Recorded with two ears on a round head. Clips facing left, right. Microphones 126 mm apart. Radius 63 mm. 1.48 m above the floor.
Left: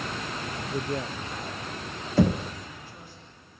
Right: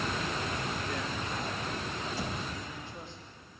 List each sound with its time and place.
0.7 s a man speaking: 55° left (ahead or behind), 0.7 m; by 3.2 s 25° right (ahead or behind), 4 m
2.2 s knocking: 50° left (ahead or behind), 0.9 m